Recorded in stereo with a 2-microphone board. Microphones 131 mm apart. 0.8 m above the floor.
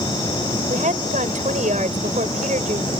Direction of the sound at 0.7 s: 75° right (ahead or behind).